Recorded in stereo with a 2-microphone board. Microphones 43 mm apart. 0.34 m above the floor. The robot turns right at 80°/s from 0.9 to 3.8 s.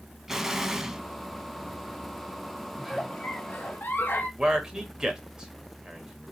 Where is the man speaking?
20° right (ahead or behind), 1.0 m.